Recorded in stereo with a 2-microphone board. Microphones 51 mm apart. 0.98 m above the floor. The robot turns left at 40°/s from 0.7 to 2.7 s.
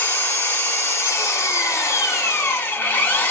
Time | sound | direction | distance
0.0 | an engine running | 125° left | 1.3 m